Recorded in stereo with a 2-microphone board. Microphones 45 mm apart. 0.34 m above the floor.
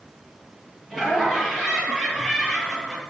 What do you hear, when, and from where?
0.9 s laughter: 5° right (ahead or behind), 7 m